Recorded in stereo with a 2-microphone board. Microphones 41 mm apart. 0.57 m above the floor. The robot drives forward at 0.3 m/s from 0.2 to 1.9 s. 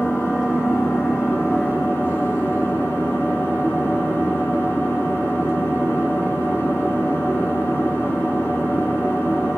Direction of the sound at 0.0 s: 85° left.